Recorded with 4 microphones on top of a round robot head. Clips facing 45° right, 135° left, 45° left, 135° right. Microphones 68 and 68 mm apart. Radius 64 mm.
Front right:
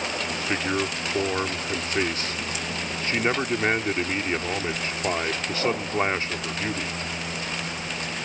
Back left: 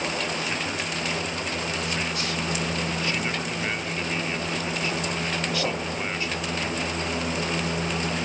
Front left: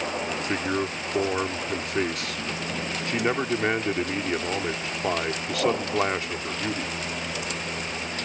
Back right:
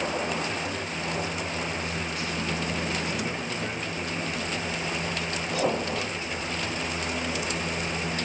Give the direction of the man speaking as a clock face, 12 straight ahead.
12 o'clock.